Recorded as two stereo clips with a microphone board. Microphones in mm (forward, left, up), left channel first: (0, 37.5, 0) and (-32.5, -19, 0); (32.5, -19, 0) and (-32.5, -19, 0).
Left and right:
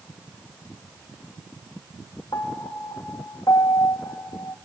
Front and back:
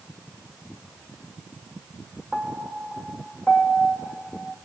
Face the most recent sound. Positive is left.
turn(degrees=85)